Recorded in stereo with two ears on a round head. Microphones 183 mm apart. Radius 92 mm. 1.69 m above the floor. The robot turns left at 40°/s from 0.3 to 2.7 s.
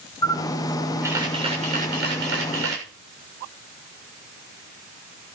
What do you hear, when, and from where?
0.2 s a camera shutter: 15° left, 7 m; by 2.9 s 80° right, 7 m